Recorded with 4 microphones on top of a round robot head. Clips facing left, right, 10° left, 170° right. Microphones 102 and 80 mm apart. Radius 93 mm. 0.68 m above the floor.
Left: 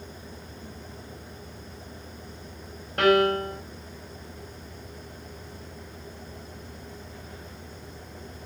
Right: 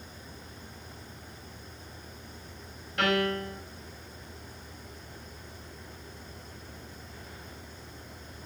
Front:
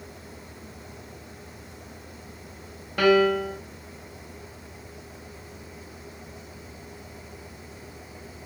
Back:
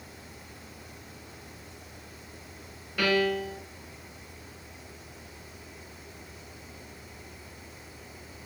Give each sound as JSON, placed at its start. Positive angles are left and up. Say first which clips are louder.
{"t": 3.0, "sound": "a piano", "louder": "left 7 dB, front 7 dB", "azimuth_deg": 40, "distance_m": 1.8}